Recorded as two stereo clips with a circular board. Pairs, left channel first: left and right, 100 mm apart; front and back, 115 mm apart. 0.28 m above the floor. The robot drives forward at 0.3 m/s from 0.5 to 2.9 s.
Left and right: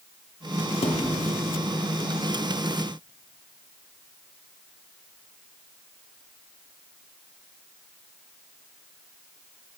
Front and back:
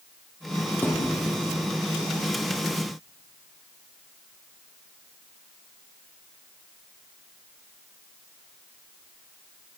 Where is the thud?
70° left, 4.5 m; by 1.2 s 75° left, 4.5 m.